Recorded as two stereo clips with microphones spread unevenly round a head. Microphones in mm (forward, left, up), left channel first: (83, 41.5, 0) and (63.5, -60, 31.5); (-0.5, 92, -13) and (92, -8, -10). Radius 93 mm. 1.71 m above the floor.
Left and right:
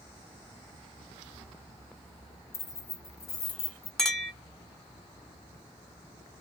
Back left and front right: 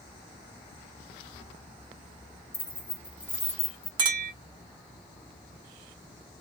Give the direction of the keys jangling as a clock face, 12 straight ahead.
10 o'clock.